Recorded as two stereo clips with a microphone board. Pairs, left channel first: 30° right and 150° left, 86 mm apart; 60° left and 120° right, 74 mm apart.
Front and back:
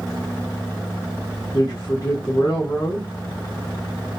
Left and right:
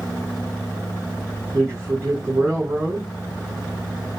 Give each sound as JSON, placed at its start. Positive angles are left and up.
{"t": 1.5, "sound": "a man speaking", "azimuth_deg": -75, "distance_m": 1.1}